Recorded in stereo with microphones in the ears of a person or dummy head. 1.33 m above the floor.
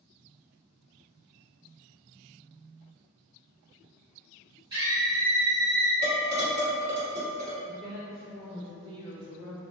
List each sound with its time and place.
4.7 s a scream: 20° right (ahead or behind), 1.6 m; by 5.9 s 60° right (ahead or behind), 0.5 m
6.0 s dishes clattering: 40° right (ahead or behind), 1.6 m
7.6 s a woman speaking: 25° right (ahead or behind), 1.5 m